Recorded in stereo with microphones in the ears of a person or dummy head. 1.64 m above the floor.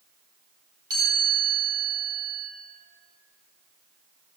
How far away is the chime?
About 2.5 m.